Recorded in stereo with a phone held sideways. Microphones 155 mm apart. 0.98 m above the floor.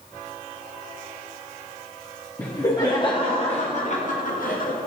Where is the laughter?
15° left (ahead or behind), 1.5 m; by 4.8 s 65° left (ahead or behind), 1.6 m.